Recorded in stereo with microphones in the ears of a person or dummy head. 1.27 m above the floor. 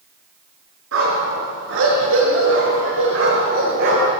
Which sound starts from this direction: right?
A dog barking, at 0.9 s.